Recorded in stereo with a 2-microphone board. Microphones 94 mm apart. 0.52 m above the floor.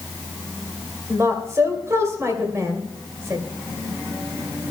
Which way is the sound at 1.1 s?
30° right (ahead or behind).